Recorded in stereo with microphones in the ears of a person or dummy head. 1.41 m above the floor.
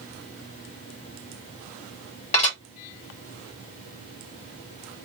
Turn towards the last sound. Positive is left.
turn(degrees=30)  # may be behind; listen again after turning